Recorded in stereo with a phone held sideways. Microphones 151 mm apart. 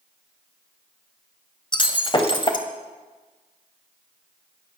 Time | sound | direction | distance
1.7 | breaking glass | 30° left (ahead or behind) | 1.7 m